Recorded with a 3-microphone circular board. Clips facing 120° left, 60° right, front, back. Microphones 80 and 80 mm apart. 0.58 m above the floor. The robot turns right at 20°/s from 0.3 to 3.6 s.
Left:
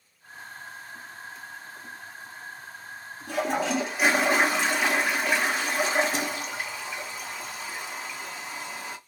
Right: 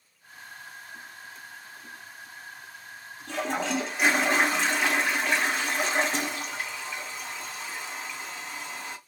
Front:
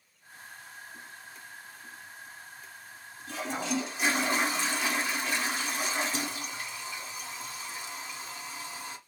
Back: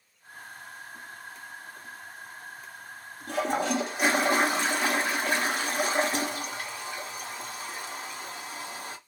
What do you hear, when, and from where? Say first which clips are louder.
3.3 s a toilet flushing: left 3 dB, back 6 dB; 165° right, 0.8 m; by 9.0 s 155° right, 0.8 m